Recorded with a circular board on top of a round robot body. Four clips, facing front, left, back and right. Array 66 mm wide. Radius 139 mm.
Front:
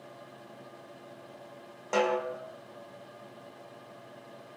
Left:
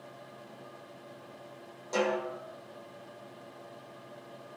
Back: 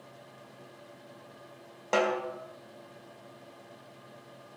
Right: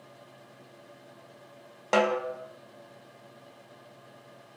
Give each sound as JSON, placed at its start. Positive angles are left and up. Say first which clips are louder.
{"t": 1.9, "sound": "a snare drum", "louder": "right 5 dB, even", "azimuth_deg": -105, "distance_m": 3.0}